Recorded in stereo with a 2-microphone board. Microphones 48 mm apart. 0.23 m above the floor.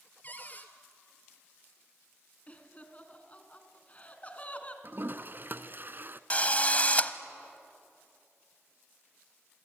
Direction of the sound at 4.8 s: 45° right (ahead or behind).